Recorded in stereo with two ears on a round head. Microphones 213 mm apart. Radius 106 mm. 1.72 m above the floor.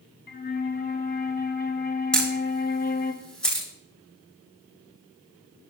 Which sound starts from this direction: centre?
A camera shutter, at 2.1 s.